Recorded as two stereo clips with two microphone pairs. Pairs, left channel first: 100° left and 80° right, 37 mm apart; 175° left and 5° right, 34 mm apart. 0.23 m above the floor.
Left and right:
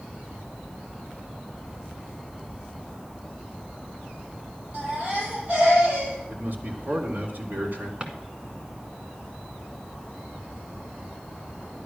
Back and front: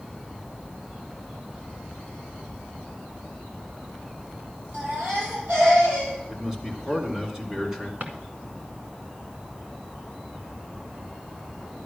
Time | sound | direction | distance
4.7 | a baby crying | 20° right | 6.5 m
6.3 | a man speaking | 75° right | 2.5 m
8.0 | a drawer | 20° right | 1.5 m